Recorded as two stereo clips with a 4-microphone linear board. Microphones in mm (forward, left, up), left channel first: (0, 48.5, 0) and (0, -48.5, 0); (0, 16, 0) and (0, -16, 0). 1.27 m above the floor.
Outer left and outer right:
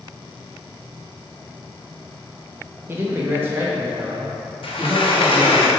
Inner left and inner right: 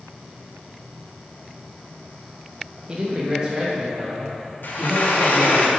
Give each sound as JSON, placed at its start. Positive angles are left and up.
{"t": 2.9, "sound": "a man speaking", "side_deg": -25, "distance_m": 1.4}
{"t": 4.6, "sound": "a sliding door", "side_deg": 65, "distance_m": 1.0}